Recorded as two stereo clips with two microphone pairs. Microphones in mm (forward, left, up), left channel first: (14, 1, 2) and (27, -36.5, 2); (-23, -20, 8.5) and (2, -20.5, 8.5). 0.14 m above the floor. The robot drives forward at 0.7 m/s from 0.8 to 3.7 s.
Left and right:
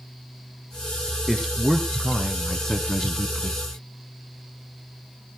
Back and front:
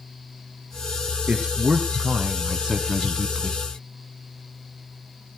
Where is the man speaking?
15° left, 1.8 m; by 3.6 s 120° left, 1.2 m.